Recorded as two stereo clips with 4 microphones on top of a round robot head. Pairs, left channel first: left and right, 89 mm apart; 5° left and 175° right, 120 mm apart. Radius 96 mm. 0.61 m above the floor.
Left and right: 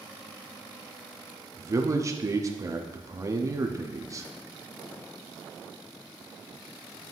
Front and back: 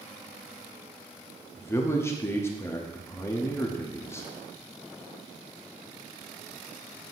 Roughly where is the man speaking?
Ahead right.